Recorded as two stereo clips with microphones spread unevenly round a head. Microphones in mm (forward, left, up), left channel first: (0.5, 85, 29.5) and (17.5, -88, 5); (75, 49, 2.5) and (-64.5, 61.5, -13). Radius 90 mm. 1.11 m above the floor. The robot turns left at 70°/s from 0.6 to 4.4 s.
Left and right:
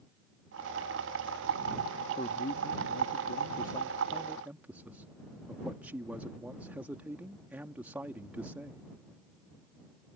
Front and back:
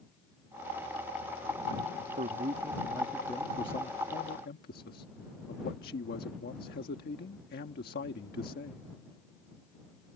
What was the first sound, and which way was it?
A man speaking, 155° left.